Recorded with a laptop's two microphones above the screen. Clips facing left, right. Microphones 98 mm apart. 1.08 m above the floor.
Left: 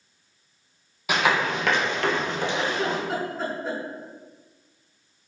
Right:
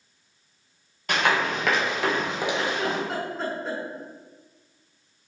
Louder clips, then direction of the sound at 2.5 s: Left 1 dB; centre (ahead or behind).